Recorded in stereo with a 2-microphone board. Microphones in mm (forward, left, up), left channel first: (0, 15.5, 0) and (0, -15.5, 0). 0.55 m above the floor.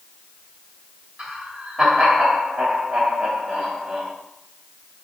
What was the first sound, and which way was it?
Laughter, 5° right (ahead or behind).